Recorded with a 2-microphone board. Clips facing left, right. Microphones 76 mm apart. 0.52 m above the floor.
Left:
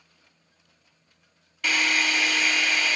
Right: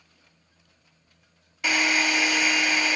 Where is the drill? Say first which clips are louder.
Right 1 dB; 15° right (ahead or behind), 1.6 m.